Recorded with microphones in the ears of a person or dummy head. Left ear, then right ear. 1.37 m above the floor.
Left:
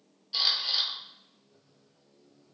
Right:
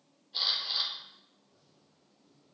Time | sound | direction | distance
0.3 | a camera shutter | 85° left | 9 m